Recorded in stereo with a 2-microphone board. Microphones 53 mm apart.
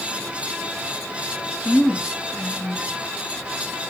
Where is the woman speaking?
65° left (ahead or behind), 4.5 m.